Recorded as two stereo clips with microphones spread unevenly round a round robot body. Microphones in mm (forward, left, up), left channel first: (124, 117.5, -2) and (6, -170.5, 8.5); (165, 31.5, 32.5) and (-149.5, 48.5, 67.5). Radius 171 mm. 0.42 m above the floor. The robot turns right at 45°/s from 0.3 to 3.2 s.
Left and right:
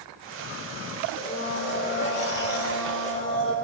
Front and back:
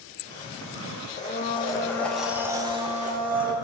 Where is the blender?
30° left, 1.1 m; by 3.5 s 125° left, 1.1 m.